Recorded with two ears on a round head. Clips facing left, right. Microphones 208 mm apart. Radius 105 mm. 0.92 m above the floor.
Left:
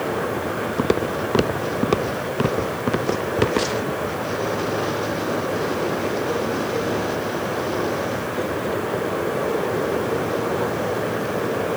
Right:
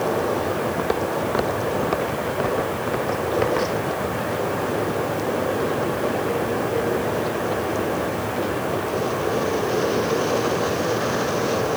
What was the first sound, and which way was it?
Footsteps, 35° left (ahead or behind).